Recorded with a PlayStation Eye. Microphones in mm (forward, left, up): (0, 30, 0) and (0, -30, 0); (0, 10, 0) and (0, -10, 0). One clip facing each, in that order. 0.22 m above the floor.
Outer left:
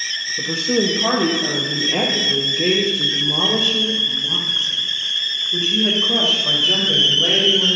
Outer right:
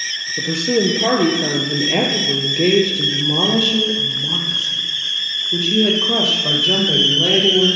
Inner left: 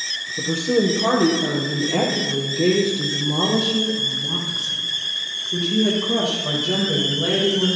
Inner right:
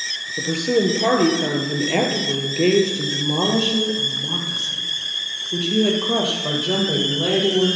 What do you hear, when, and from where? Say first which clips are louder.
0.4 s a woman speaking: outer right 2 dB, even; 70° right (ahead or behind), 5 m; by 7.8 s 65° right (ahead or behind), 8.5 m